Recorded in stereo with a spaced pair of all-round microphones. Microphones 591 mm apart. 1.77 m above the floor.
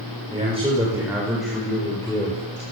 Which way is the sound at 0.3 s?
10° right (ahead or behind).